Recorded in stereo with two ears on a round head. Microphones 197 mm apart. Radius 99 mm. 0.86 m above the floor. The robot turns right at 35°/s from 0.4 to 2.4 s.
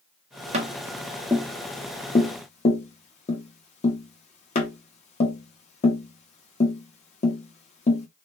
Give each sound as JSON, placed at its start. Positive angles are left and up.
{"t": 0.5, "sound": "tapping", "side_deg": -30, "distance_m": 0.8}